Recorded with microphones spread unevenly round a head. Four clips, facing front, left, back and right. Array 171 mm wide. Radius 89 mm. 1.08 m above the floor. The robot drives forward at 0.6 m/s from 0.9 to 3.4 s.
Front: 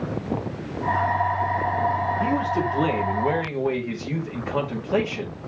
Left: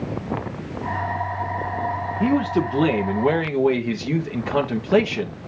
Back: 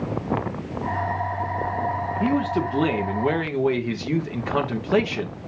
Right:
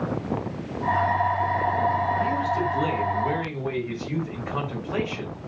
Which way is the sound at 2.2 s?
105° left.